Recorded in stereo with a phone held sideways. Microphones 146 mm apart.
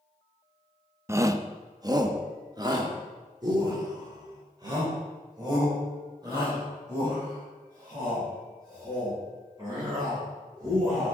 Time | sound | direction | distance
1.1 | a shout | 15° right (ahead or behind) | 0.6 m